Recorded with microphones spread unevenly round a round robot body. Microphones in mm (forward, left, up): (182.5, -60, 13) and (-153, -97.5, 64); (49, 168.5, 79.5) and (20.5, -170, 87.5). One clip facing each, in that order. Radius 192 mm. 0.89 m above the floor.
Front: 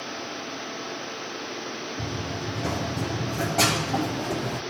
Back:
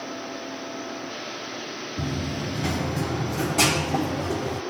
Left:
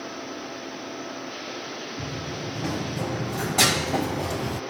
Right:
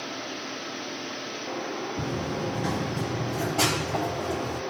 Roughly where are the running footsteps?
Behind right.